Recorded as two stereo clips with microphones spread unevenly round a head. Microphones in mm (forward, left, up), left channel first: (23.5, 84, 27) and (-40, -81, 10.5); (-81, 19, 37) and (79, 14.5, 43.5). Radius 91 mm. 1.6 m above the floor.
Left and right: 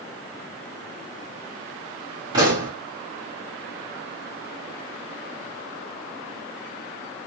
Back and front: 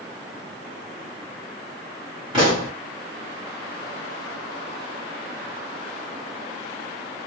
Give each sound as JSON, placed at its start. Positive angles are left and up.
{"t": 2.3, "sound": "a pop", "azimuth_deg": -50, "distance_m": 1.4}